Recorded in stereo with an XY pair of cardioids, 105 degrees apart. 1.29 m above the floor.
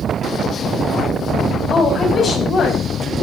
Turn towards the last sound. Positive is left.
turn(degrees=50)